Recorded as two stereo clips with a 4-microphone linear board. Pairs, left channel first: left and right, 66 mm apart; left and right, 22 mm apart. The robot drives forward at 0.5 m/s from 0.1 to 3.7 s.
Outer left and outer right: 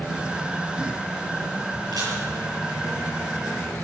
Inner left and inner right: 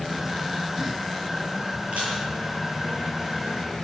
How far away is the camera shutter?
About 9.5 m.